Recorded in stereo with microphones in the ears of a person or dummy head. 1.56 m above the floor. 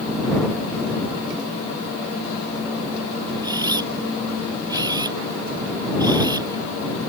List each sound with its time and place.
3.4 s a camera shutter: 20° right (ahead or behind)